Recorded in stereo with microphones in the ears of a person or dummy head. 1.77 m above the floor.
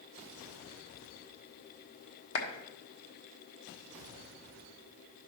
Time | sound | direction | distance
2.4 | a clap | 80° left | 1.4 m